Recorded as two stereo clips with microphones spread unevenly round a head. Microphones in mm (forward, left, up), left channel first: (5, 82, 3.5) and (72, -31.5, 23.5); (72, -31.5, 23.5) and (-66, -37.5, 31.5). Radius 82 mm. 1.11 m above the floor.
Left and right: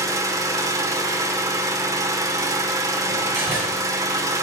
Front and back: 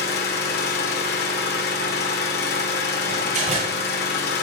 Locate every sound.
0.0 s an engine running: 5° left, 1.6 m
3.1 s a door slam: 140° right, 6 m